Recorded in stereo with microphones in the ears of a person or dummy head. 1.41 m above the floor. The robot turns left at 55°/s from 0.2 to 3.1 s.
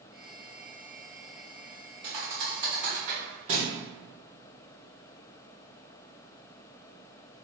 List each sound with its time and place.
2.0 s a thud: 40° right (ahead or behind), 1.3 m; by 3.7 s 30° right (ahead or behind), 1.3 m